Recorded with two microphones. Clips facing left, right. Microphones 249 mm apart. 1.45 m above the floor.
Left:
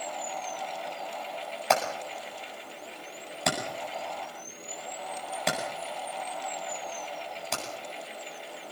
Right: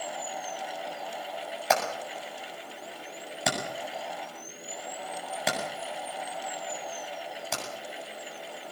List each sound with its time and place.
1.7 s hammering: centre (ahead or behind), 7.5 m